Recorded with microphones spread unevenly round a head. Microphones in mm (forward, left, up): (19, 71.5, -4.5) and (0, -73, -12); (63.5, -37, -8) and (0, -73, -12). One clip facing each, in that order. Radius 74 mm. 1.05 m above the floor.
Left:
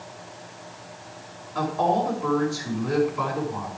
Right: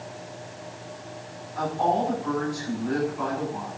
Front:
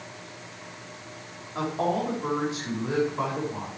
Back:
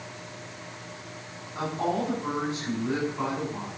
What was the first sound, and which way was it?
A woman speaking, 95° left.